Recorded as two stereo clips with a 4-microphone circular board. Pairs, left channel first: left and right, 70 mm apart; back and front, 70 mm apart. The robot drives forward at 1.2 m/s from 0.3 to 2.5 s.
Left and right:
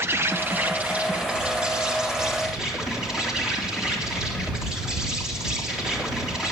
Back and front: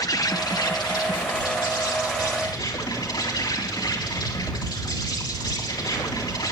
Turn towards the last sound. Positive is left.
turn(degrees=-170)